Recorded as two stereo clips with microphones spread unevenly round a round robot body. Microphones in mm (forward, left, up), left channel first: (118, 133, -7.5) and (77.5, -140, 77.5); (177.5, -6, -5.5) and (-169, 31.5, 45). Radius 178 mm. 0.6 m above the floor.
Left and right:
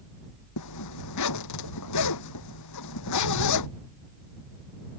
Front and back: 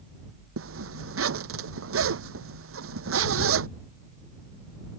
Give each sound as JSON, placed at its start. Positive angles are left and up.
{"t": 0.6, "sound": "a zipper", "azimuth_deg": 120}